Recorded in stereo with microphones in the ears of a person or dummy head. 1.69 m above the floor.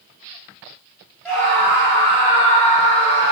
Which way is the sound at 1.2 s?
5° left (ahead or behind).